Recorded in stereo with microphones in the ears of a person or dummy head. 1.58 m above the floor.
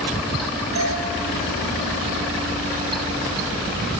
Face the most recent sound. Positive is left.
turn(degrees=-75)  # may be behind; listen again after turning